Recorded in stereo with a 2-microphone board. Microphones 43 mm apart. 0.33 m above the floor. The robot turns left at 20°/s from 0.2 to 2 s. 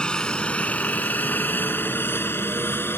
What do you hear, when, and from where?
0.0 s a helicopter: 20° left (ahead or behind); by 3.0 s 60° left (ahead or behind)